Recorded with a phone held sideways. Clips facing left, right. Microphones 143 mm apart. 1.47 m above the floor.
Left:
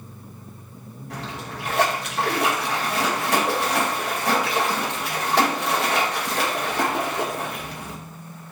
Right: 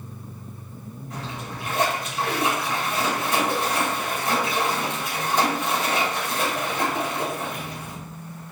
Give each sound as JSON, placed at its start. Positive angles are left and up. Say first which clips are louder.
{"t": 1.1, "sound": "a splash", "louder": "left 1 dB", "side_deg": 70, "distance_m": 2.0}